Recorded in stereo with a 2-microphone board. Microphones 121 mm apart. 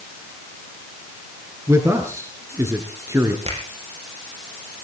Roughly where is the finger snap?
Right.